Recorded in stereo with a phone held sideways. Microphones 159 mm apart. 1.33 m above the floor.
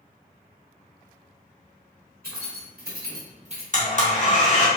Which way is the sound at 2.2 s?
70° right (ahead or behind).